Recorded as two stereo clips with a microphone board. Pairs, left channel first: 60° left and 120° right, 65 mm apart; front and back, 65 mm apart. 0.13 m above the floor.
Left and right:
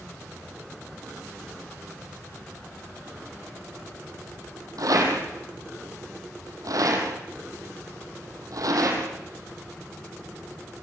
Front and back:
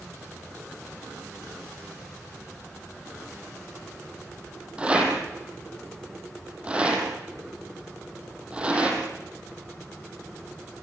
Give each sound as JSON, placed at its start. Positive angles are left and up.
{"t": 4.8, "sound": "a rattle", "azimuth_deg": -110, "distance_m": 5.5}